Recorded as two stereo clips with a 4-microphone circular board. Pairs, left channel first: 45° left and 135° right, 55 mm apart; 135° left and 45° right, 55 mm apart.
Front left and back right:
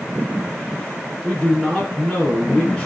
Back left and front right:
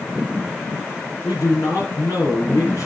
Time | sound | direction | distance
1.2 | a man speaking | 130° left | 3 m